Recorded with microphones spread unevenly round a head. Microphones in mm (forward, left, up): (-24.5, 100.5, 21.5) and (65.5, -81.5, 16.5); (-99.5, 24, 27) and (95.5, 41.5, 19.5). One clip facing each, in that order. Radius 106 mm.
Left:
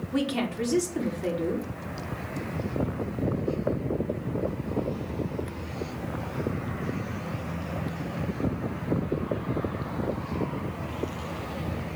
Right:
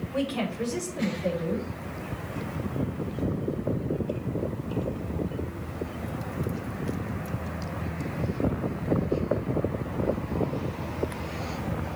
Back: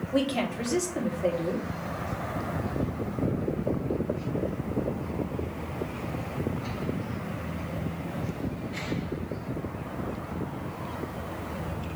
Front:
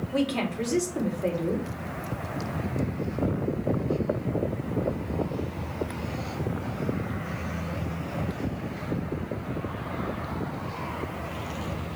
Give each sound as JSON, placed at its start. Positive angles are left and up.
{"t": 0.1, "sound": "a woman speaking", "azimuth_deg": 100, "distance_m": 3.5}